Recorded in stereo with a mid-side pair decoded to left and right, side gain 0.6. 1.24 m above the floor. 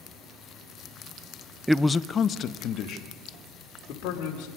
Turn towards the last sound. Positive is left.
turn(degrees=65)